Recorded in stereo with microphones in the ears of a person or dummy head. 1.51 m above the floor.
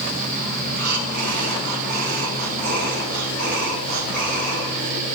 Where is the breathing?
55° right (ahead or behind), 7 m.